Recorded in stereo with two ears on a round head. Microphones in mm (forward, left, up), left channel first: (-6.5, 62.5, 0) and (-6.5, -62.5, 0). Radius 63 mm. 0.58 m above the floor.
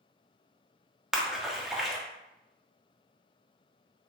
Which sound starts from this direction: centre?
A splash, at 1.1 s.